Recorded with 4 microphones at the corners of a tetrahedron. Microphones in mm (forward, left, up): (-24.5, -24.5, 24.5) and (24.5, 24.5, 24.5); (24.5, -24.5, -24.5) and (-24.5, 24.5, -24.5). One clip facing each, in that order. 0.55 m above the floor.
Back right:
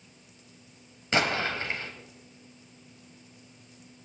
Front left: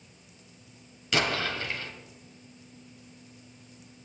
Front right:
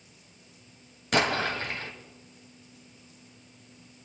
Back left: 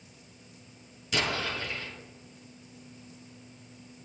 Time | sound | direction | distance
1.1 | an explosion | 80° right | 3 m